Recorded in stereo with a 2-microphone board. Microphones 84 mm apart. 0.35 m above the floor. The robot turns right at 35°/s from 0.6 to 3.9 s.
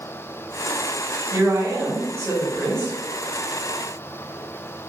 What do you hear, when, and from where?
1.3 s a woman speaking: 100° right, 1.0 m; by 3.0 s 45° right, 1.0 m